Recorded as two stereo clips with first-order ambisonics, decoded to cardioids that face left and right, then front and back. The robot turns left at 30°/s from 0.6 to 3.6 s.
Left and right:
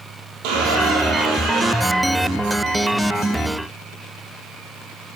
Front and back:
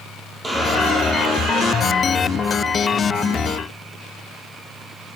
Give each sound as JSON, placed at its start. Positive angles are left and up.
{"t": 0.4, "sound": "a squeak", "azimuth_deg": -100, "distance_m": 3.0}